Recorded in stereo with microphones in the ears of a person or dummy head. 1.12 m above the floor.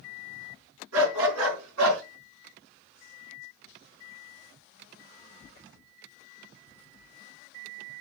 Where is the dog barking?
85° right, 5 m; by 2.0 s 75° right (ahead or behind), 4.5 m.